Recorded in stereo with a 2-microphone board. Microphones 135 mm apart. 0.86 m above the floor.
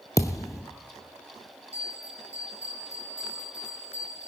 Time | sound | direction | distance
0.2 | a thud | 25° left (ahead or behind) | 0.9 m
1.7 | a bell | 55° right (ahead or behind) | 9 m